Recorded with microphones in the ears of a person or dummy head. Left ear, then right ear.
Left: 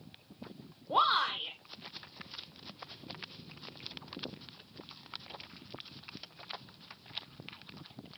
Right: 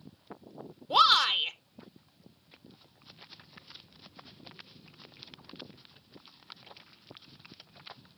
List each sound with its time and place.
0.9 s a shout: 80° right, 1.2 m